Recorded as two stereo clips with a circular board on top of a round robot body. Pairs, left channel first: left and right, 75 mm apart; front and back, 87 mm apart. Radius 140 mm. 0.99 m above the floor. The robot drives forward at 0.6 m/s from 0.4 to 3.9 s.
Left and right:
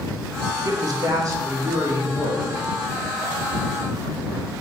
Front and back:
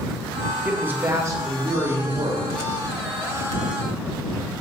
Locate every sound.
0.7 s a man speaking: 105° right, 0.8 m; by 2.6 s 155° right, 1.6 m